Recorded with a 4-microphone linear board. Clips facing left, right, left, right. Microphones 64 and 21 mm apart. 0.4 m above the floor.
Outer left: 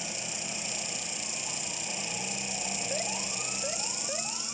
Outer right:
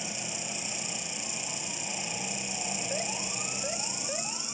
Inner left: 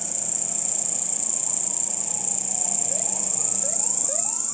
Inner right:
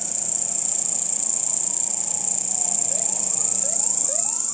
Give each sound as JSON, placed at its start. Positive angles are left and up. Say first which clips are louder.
{"t": 0.0, "sound": "an insect", "louder": "outer right 1 dB, inner right 1 dB", "side_deg": -25, "distance_m": 0.9}